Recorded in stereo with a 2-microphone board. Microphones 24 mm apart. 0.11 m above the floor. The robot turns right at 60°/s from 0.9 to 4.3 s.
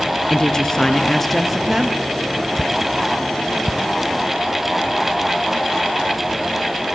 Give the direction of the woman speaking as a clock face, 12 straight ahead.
7 o'clock.